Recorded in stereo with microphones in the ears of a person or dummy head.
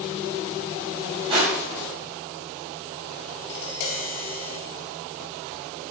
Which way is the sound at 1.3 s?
35° right (ahead or behind).